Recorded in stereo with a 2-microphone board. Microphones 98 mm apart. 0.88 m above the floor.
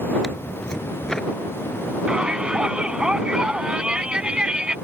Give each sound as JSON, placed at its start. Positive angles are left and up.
{"t": 0.2, "sound": "tearing paper", "side_deg": 5}
{"t": 2.1, "sound": "a shout", "side_deg": -10}